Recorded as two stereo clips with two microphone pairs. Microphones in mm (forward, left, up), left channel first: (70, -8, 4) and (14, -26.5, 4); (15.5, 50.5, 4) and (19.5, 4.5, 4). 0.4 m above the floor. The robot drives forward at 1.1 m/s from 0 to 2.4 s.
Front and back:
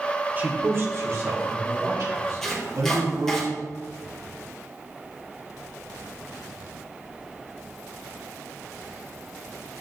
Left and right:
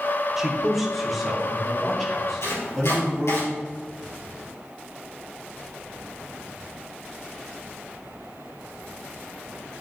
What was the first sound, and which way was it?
A man speaking, 160° right.